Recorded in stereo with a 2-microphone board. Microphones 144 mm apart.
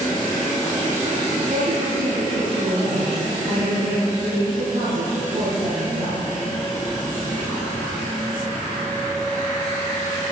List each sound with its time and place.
1.5 s a woman speaking: 75° right (ahead or behind), 7 m